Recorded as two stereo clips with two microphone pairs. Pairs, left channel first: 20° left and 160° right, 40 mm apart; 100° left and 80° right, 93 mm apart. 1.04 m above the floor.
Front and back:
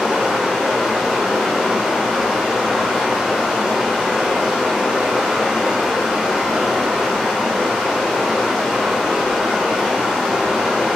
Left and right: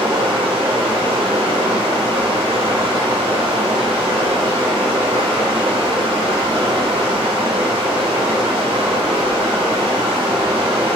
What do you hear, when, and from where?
0.0 s running water: 80° right, 1.0 m